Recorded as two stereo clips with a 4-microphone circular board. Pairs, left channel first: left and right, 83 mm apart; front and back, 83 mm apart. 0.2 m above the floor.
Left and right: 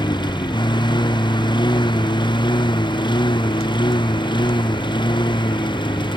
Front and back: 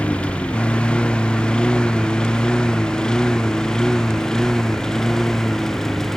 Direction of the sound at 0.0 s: 75° left.